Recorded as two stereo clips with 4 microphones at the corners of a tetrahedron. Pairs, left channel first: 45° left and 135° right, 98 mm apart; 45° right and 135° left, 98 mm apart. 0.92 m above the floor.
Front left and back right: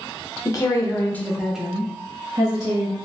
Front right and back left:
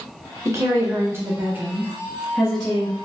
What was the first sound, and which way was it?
A woman speaking, 85° left.